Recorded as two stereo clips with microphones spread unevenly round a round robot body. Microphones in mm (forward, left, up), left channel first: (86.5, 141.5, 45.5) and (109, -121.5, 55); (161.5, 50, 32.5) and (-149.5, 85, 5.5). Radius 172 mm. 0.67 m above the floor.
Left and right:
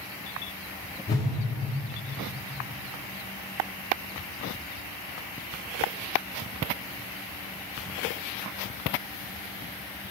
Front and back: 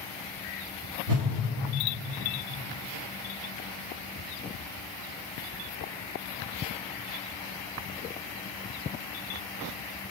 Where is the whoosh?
170° left, 1.5 m.